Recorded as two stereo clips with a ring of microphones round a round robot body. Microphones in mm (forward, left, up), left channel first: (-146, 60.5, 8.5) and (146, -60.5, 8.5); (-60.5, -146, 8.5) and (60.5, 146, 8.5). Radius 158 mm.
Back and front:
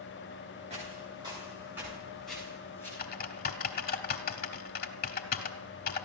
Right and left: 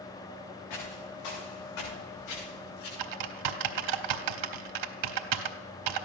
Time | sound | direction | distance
0.7 | footsteps | 95° right | 7 m
3.0 | typing on a keyboard | 95° left | 0.8 m